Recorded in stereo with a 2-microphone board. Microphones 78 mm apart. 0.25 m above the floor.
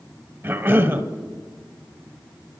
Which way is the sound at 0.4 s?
25° right (ahead or behind).